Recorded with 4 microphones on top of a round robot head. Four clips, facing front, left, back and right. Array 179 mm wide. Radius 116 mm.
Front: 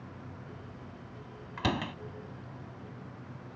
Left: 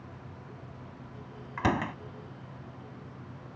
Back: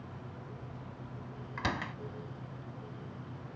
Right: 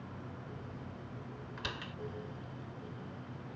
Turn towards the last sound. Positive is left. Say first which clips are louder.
# left 17 dB, front 4 dB
turn(degrees=70)